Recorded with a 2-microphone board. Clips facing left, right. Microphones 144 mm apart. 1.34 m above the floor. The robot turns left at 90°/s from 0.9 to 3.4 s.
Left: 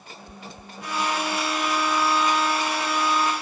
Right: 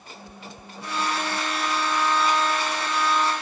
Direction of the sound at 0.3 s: 15° right (ahead or behind).